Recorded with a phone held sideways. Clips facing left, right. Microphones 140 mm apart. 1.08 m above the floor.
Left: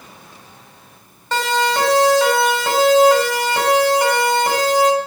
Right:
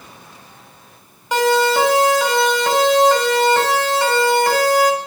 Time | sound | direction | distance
1.3 | a siren | 10° right (ahead or behind) | 5.5 m